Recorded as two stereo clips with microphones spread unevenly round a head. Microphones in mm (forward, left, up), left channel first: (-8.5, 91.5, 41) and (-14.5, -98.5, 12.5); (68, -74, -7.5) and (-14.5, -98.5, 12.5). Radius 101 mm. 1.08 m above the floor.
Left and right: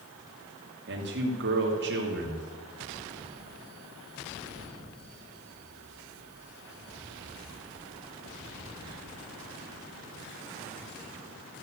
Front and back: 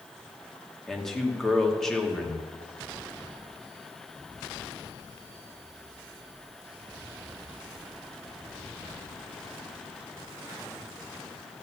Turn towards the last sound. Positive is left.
turn(degrees=-70)